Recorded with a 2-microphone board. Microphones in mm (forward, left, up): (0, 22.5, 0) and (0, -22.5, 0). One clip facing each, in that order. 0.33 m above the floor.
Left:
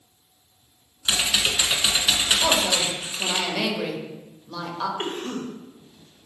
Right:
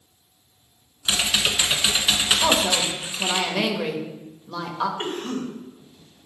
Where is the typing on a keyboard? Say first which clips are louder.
Right 1 dB; 10° right (ahead or behind), 0.9 m.